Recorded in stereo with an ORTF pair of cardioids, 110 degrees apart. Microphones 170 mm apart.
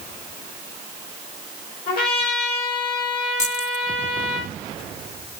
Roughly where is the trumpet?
Ahead left.